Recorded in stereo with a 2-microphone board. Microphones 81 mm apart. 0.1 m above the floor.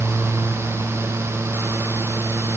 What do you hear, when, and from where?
Only background noise.